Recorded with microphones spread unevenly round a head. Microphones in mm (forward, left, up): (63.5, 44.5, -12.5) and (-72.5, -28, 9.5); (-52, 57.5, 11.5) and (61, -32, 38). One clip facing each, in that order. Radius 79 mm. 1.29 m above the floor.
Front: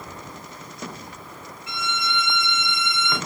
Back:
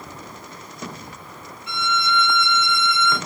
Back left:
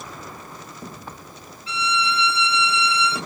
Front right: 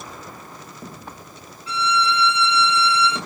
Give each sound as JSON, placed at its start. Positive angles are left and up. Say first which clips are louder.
{"t": 1.7, "sound": "a violin", "louder": "back 6 dB, front right 3 dB", "azimuth_deg": 75, "distance_m": 2.0}